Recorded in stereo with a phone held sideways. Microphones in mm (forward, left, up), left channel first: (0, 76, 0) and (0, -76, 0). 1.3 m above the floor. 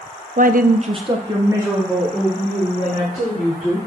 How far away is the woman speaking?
About 0.6 m.